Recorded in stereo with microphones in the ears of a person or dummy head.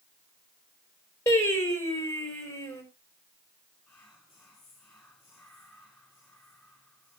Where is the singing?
15° left (ahead or behind), 3.5 m.